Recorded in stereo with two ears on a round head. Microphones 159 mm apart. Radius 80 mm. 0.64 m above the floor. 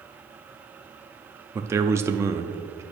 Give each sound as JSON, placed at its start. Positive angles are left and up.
{"t": 1.6, "sound": "a man speaking", "side_deg": -15, "distance_m": 0.5}